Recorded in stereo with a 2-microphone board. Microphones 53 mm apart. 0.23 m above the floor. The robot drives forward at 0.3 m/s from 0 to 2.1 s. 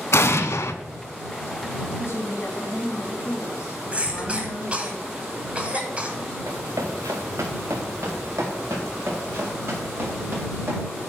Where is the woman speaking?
45° left (ahead or behind), 1.6 m.